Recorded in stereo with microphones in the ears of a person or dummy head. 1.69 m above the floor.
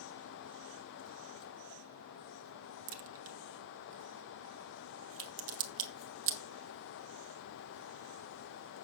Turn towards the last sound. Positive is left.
turn(degrees=-70)  # may be behind; listen again after turning